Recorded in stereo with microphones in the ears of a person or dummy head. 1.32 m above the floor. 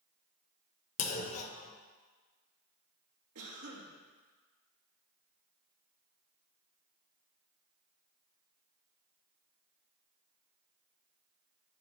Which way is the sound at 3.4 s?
85° right.